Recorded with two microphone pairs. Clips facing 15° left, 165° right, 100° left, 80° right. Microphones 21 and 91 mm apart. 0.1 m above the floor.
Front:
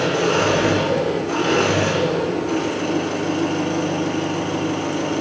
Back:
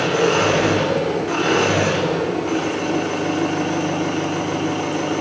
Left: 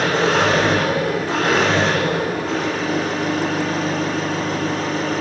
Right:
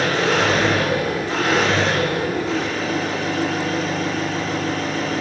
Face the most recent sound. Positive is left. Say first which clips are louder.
# back 1 dB, left 2 dB
turn(degrees=140)